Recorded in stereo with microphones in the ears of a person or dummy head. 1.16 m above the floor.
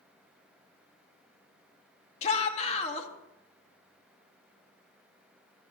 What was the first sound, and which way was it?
A shout, 35° left (ahead or behind).